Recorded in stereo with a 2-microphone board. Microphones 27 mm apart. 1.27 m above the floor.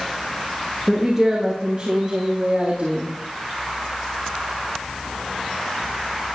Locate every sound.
0.9 s a woman speaking: 10° right (ahead or behind), 1.4 m; by 3.1 s 55° right (ahead or behind), 2.5 m